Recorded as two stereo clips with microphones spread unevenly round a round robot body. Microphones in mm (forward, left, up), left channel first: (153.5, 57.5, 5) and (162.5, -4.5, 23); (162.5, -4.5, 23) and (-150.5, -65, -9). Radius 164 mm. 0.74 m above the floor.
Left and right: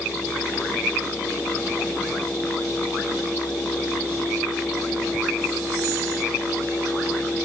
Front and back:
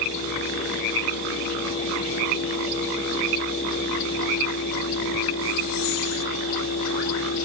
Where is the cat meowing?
I don't hear a cat meowing.